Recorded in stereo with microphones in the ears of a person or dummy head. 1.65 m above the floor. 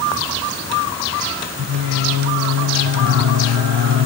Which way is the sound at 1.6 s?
65° right (ahead or behind).